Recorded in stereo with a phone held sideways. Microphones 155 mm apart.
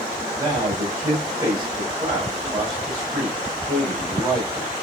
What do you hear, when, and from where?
0.3 s a man speaking: 15° right (ahead or behind), 5 m